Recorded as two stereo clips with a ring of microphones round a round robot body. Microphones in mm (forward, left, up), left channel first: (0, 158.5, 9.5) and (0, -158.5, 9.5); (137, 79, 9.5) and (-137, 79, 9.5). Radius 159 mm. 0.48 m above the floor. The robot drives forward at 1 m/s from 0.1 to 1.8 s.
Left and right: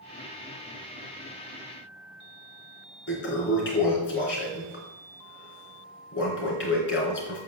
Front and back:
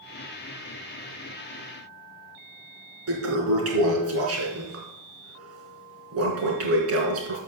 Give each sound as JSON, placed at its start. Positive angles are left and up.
{"t": 3.1, "sound": "a toilet flushing", "azimuth_deg": 145, "distance_m": 4.0}